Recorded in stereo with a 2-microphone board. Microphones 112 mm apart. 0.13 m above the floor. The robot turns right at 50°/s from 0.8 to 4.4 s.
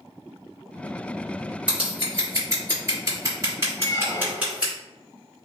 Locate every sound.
1.7 s scissors: 10° right (ahead or behind), 1.9 m
3.8 s a squeak: 120° left, 0.6 m; by 4.6 s 155° left, 0.6 m